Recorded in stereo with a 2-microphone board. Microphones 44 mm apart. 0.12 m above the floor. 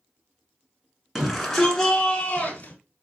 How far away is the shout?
About 1.2 m.